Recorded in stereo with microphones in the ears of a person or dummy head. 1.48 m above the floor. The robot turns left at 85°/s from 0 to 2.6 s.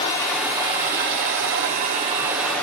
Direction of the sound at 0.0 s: 30° left.